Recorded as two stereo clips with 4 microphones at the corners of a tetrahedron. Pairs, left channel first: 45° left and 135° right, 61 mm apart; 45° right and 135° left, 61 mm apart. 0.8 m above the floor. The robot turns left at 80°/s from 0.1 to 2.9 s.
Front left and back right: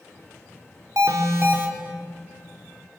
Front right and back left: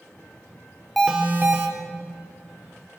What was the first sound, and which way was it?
An alarm, 135° right.